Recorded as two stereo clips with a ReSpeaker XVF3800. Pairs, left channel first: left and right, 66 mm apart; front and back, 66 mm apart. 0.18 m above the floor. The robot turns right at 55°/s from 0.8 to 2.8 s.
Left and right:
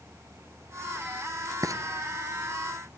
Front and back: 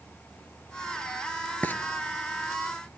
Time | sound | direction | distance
1.6 | frying | 65° right | 1.6 m